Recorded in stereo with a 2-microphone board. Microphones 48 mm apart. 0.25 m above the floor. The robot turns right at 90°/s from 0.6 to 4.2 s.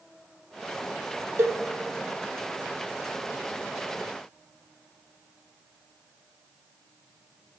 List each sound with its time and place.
1.4 s a cowbell: 70° right (ahead or behind), 0.9 m; by 1.6 s 80° right, 0.9 m